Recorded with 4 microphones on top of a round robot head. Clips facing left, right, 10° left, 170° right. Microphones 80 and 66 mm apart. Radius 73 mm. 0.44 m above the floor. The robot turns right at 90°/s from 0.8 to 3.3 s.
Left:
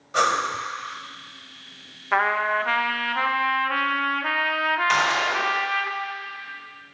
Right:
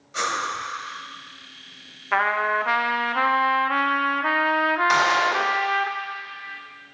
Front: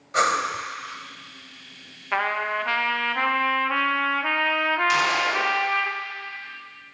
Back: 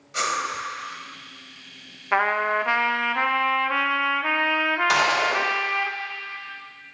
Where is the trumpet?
165° left, 0.7 m; by 5.9 s 90° right, 0.7 m.